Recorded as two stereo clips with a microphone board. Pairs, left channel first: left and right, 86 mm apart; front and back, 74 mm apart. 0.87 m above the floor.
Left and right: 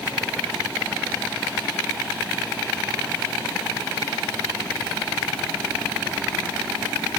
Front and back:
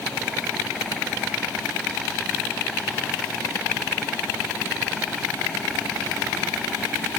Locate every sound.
Only background noise.